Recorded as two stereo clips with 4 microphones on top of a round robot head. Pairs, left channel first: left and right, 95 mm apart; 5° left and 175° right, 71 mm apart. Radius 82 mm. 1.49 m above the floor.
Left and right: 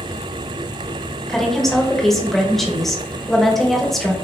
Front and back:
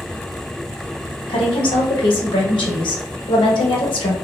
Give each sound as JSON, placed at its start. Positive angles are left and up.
{"t": 1.3, "sound": "a woman speaking", "azimuth_deg": 5, "distance_m": 1.2}